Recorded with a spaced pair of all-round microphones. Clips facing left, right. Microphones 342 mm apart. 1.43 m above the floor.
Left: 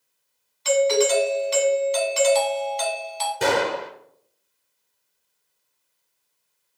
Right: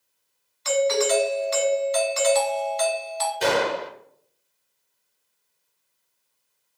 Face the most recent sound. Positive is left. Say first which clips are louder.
# left 1 dB
turn(degrees=60)  # may be behind; listen again after turning